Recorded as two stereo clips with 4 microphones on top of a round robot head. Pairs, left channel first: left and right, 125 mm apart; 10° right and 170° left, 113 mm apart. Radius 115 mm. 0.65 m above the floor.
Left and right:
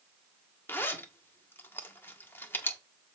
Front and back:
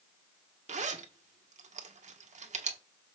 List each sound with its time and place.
0.7 s a zipper: 165° left, 1.6 m